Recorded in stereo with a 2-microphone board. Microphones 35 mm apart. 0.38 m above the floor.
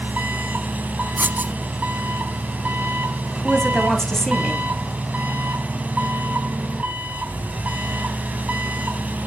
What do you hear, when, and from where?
0.0 s an engine running: 45° right (ahead or behind), 3 m
1.2 s writing: 65° right (ahead or behind), 0.7 m
3.3 s a woman speaking: 15° left (ahead or behind), 2 m